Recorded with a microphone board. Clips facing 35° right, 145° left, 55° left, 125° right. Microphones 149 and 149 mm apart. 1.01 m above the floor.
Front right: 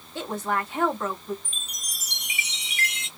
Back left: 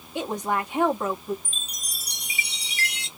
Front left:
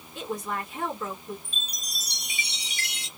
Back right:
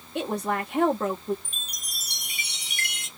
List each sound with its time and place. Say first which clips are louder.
0.1 s a woman speaking: back left 2 dB, back right 5 dB; 140° right, 1.3 m
1.4 s a chime: back left 1 dB, front left 2 dB; 160° right, 1.0 m